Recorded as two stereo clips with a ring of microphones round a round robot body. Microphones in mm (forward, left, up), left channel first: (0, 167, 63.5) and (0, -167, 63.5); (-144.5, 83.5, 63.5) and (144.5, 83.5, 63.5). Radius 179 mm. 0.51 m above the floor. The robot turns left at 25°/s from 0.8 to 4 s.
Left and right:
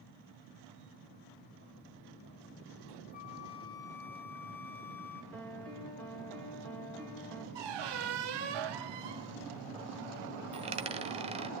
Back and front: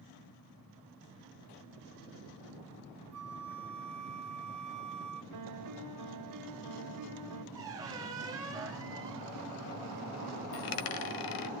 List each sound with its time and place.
3.1 s a flute: 30° left, 1.6 m; by 5.2 s 5° left, 1.6 m
5.3 s a piano: 5° left, 2.5 m
7.5 s a squeak: 80° right, 1.1 m
10.5 s a dropped coin: 165° right, 1.1 m